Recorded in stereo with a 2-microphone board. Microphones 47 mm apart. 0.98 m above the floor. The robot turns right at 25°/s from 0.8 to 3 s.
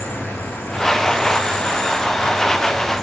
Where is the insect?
120° left, 1.4 m; by 3.0 s 175° left, 1.4 m.